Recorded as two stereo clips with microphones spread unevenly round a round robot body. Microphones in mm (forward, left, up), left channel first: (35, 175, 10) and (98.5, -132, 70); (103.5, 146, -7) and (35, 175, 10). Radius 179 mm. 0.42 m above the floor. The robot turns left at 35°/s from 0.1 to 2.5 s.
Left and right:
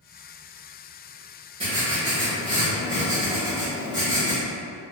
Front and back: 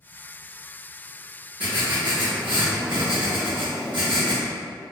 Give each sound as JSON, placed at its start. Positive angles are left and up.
{"t": 1.6, "sound": "writing", "azimuth_deg": -160, "distance_m": 0.8}